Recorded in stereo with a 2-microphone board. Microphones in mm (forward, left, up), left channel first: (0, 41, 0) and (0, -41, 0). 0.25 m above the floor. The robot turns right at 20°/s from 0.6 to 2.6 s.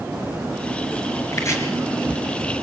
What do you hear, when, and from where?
1.3 s chopping: 40° left (ahead or behind), 4.5 m; by 1.6 s 35° left (ahead or behind), 4.5 m